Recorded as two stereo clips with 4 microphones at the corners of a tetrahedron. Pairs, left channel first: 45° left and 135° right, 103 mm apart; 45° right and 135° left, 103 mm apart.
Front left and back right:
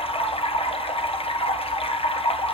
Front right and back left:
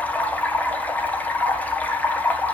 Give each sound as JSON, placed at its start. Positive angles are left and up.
{"t": 0.0, "sound": "running water", "azimuth_deg": 30, "distance_m": 1.1}